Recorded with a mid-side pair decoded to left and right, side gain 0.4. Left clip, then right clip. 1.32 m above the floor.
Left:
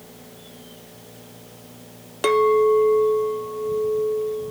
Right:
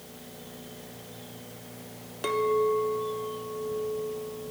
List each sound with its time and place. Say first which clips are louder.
2.2 s a clink: left 9 dB; 60° left, 0.6 m